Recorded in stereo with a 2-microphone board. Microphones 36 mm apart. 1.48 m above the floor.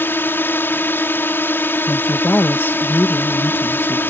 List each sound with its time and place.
0.0 s a drone: 85° left
1.9 s a woman speaking: 75° left (ahead or behind)